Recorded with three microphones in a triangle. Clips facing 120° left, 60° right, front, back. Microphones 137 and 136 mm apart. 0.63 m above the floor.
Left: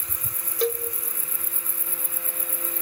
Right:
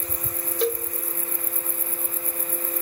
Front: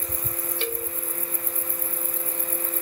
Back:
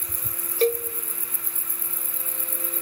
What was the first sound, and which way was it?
A cowbell, 150° right.